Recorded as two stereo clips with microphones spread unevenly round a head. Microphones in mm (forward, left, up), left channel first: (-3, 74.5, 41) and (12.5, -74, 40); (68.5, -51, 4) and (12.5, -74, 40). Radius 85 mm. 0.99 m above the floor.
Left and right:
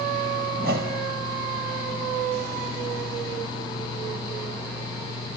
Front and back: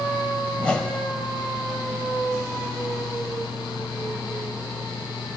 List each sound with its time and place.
0.6 s a whoosh: 60° right, 3.5 m